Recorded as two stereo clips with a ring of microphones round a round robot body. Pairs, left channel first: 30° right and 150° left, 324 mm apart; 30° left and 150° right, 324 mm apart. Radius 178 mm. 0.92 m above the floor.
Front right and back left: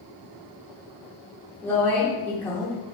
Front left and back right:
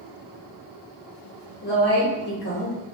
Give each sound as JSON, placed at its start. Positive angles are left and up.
{"t": 1.6, "sound": "a woman speaking", "azimuth_deg": 50, "distance_m": 0.7}